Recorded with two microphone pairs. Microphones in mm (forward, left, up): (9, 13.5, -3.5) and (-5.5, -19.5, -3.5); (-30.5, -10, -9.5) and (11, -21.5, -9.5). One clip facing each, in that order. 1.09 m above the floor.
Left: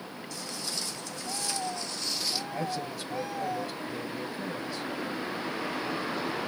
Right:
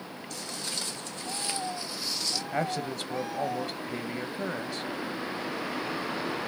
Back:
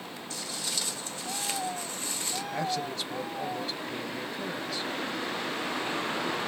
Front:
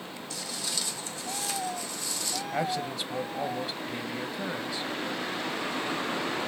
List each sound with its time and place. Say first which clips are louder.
0.3 s footsteps: right 1 dB, even; 135° right, 3 m; by 2.4 s 120° left, 1.2 m
2.5 s a man speaking: right 3 dB, front 2 dB; 95° right, 0.8 m